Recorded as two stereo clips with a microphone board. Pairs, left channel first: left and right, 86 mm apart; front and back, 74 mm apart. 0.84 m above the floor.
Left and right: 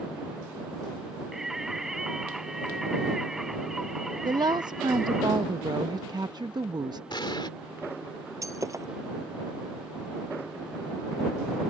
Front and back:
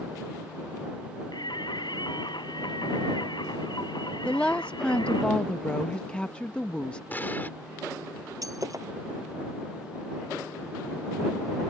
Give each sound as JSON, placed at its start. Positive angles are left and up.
{"t": 1.3, "sound": "singing", "azimuth_deg": -5}
{"t": 4.2, "sound": "a woman speaking", "azimuth_deg": -75}
{"t": 7.1, "sound": "an explosion", "azimuth_deg": 65}
{"t": 8.4, "sound": "breaking glass", "azimuth_deg": -140}